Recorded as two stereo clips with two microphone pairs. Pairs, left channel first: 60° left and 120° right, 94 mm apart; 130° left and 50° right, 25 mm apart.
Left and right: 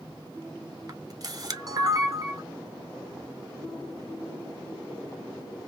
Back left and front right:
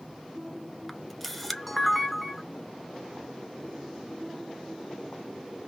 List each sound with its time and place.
0.9 s a camera shutter: 145° right, 0.7 m